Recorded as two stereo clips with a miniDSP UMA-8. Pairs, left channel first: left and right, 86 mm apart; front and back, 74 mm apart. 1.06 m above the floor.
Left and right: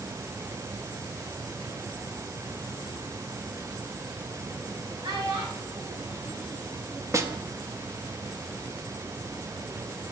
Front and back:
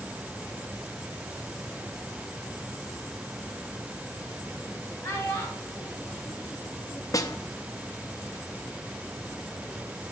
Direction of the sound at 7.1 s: 40° right.